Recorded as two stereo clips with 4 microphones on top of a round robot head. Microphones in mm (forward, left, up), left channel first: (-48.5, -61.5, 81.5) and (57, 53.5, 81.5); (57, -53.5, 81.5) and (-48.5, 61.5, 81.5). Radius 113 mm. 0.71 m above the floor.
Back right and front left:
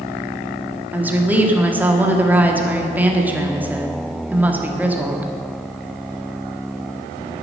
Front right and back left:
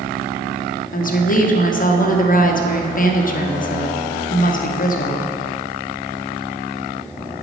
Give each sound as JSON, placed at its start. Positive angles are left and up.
{"t": 0.9, "sound": "a woman speaking", "azimuth_deg": -30, "distance_m": 1.7}